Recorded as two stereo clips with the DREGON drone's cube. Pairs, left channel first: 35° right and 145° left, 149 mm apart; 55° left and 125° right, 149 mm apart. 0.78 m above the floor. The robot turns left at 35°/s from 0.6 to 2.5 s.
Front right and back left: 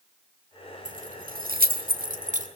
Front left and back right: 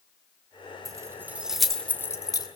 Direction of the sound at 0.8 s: 170° left.